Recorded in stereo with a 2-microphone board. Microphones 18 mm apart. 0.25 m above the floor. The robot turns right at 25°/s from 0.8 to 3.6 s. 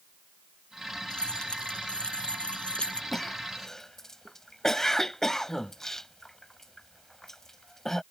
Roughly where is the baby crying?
I don't hear a baby crying.